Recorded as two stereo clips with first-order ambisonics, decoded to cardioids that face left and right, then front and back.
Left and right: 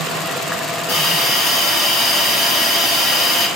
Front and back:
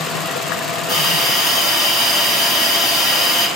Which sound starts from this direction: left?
A hiss, at 0.9 s.